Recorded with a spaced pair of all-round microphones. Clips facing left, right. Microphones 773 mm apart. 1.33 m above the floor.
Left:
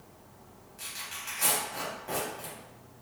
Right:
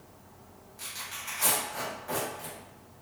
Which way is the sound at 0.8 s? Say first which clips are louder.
Right 1 dB; 60° left (ahead or behind).